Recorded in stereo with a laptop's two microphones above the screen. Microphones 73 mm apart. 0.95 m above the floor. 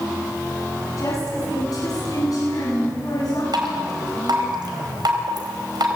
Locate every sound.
1.0 s a woman speaking: 50° left (ahead or behind), 9.5 m; by 3.4 s 60° left (ahead or behind), 10 m
3.5 s dripping: 75° right (ahead or behind), 4 m